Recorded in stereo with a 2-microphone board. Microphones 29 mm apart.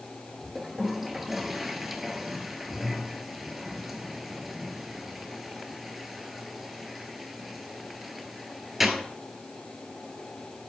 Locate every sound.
0.6 s a toilet flushing: 5° right (ahead or behind), 1.1 m